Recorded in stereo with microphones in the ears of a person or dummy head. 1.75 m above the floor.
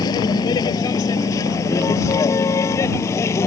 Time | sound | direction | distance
0.0 | a vehicle | 25° left (ahead or behind) | ?